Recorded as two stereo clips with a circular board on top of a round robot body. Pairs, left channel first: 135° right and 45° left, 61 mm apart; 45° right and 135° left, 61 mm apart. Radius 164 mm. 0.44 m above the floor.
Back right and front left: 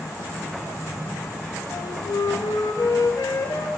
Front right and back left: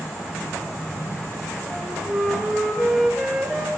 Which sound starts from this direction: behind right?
A flute, at 1.7 s.